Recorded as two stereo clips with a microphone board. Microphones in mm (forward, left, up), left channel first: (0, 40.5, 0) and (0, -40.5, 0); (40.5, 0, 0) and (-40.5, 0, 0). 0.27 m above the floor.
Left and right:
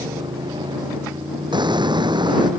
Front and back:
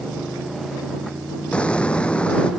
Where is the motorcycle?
90° right.